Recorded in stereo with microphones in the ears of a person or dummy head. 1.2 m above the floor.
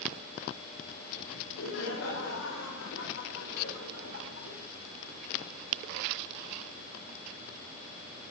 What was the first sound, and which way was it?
Laughter, 80° left.